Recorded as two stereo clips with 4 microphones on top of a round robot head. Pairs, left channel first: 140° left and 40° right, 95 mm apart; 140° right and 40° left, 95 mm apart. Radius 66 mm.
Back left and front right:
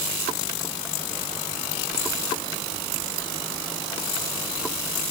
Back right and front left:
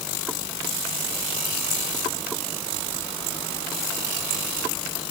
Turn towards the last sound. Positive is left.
No sound to turn to.